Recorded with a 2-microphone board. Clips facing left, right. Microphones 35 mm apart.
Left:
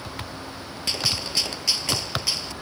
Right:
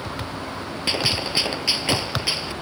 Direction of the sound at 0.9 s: 25° right (ahead or behind).